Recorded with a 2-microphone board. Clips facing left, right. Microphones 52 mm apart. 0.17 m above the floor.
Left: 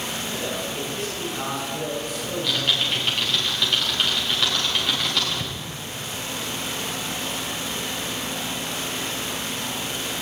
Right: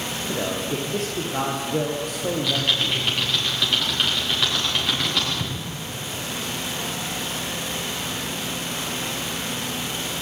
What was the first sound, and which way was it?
A man speaking, 55° right (ahead or behind).